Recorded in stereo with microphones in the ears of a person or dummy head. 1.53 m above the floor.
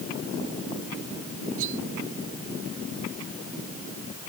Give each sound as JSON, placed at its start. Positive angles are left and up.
{"t": 1.6, "sound": "cutlery clinking", "side_deg": -70}